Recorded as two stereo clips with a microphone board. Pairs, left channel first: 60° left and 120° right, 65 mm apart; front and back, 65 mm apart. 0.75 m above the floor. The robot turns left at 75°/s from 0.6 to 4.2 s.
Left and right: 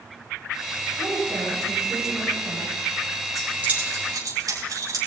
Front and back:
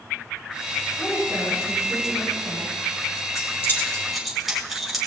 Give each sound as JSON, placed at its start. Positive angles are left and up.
{"t": 1.0, "sound": "a woman speaking", "azimuth_deg": -65, "distance_m": 6.0}
{"t": 3.4, "sound": "keys jangling", "azimuth_deg": -30, "distance_m": 5.5}